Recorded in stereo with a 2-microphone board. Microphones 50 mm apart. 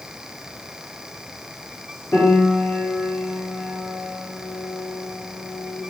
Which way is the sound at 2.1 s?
60° left (ahead or behind).